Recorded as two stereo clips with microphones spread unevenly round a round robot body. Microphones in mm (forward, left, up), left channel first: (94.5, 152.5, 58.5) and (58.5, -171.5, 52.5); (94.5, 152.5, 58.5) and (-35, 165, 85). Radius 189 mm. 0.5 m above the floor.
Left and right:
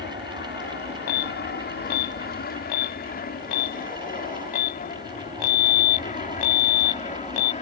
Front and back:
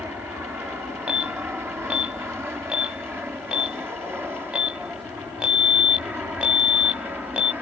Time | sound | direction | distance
0.0 | an aircraft | 100° left | ?
1.1 | an alarm | 90° left | ?